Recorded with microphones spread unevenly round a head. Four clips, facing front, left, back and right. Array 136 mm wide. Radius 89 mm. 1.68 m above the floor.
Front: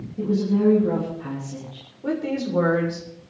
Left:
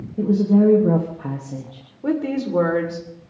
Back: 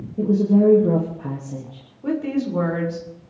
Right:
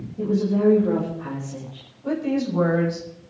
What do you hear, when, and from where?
0.2 s a woman speaking: 140° left, 3 m
2.0 s a woman speaking: 85° left, 7 m